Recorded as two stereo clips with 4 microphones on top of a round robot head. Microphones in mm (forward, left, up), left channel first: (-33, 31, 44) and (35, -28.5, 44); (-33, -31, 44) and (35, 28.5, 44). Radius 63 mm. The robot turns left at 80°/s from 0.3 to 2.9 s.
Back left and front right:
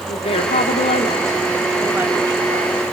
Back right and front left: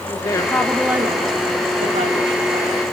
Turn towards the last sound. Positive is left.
turn(degrees=-40)